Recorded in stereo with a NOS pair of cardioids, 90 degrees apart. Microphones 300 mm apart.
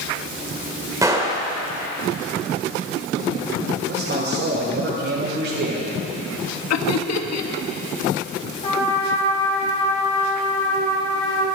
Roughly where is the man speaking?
Ahead right.